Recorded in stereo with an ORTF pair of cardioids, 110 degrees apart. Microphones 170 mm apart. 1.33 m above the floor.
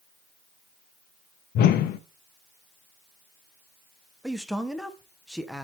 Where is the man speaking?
Straight ahead, 0.8 m.